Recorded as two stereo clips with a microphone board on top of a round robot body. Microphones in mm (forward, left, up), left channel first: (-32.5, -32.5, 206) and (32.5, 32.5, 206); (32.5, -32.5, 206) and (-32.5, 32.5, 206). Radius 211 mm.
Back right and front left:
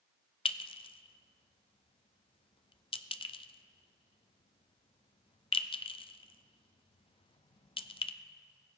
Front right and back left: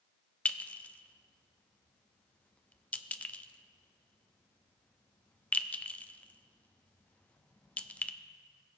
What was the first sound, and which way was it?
A clink, 120° right.